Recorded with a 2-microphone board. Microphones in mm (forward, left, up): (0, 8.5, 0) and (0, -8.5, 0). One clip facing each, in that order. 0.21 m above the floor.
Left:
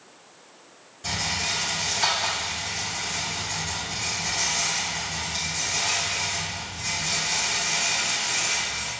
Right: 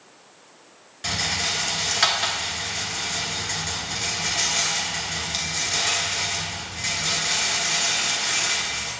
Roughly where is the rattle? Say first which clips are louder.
Right 2 dB; right.